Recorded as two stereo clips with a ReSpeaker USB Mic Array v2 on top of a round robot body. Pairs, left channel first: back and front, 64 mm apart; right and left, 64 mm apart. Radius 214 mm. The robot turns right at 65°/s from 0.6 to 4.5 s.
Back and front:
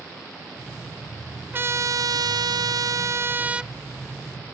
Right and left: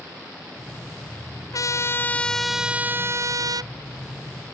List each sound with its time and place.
1.5 s a trumpet: 60° right; by 3.7 s 85° left